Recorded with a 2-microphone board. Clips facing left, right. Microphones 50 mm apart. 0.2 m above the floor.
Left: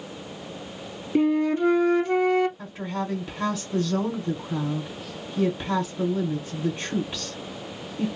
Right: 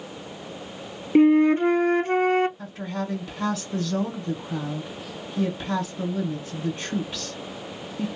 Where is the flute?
35° right (ahead or behind), 0.6 m.